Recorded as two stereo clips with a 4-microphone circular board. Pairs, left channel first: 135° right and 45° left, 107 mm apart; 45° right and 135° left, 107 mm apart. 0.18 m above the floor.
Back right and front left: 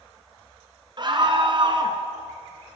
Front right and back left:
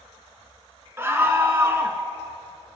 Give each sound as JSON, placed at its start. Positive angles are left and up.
{"t": 1.0, "sound": "a scream", "azimuth_deg": 75, "distance_m": 1.9}